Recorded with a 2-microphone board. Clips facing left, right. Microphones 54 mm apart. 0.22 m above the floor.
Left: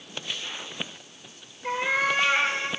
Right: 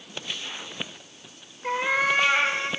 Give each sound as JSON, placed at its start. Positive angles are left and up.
{"t": 1.6, "sound": "a cat meowing", "side_deg": -15, "distance_m": 5.0}